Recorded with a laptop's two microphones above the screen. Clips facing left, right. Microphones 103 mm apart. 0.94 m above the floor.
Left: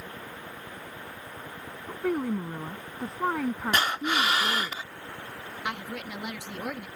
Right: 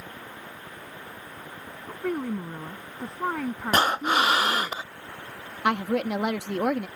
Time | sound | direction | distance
1.9 | a woman speaking | 5° left (ahead or behind) | ?
3.7 | breathing | 40° right (ahead or behind) | ?
5.6 | a woman speaking | 65° right (ahead or behind) | ?